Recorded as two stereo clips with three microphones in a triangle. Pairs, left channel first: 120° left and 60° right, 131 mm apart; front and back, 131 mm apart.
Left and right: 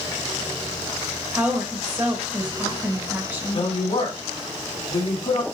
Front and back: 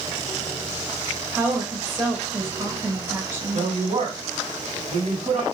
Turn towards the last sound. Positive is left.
turn(degrees=155)